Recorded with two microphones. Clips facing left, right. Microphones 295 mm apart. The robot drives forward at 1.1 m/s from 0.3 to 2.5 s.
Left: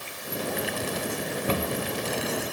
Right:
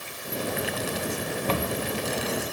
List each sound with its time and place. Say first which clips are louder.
1.5 s a cupboard door: even; 15° left (ahead or behind), 1.1 m; by 1.8 s 10° left (ahead or behind), 1.5 m